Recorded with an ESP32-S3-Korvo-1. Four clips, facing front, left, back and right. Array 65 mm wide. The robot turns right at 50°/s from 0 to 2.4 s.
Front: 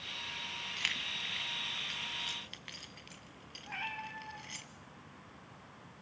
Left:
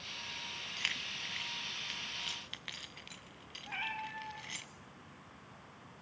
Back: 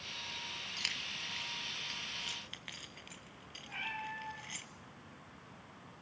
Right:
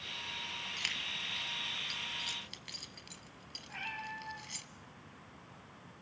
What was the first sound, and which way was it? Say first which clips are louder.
Keys jangling: left 2 dB, front 5 dB; 15° left.